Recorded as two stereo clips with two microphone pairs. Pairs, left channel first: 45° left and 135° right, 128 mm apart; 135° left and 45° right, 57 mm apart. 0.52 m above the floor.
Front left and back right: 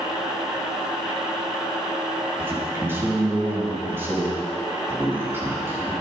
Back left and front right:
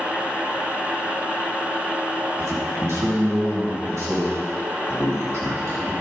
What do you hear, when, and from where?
2.4 s a man speaking: 65° right, 3.5 m